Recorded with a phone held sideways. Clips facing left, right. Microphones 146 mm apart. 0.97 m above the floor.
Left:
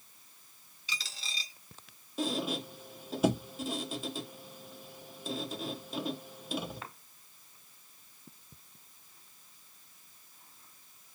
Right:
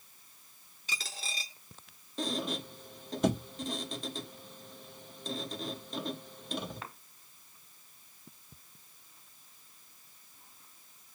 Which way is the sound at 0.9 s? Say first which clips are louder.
Right 2 dB; 50° right (ahead or behind).